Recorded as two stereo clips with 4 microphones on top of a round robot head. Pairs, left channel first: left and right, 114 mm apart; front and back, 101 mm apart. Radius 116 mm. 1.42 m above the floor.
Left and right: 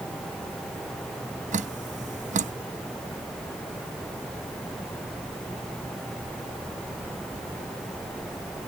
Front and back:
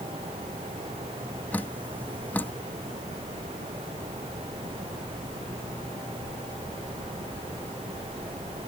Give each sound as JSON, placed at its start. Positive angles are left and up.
{"t": 1.5, "sound": "dripping", "azimuth_deg": -80}